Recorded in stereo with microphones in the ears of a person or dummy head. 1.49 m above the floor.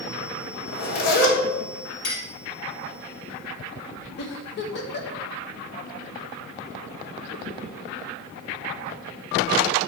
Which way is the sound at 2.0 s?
60° left (ahead or behind).